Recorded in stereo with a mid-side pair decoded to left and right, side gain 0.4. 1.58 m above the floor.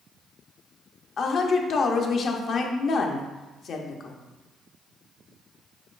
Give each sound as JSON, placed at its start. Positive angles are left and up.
{"t": 1.2, "sound": "a woman speaking", "azimuth_deg": 60, "distance_m": 0.6}